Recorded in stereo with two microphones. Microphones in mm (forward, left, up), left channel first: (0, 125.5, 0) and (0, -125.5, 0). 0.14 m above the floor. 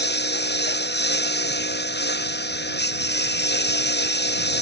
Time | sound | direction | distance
0.0 | a lawn mower | 40° left (ahead or behind) | ?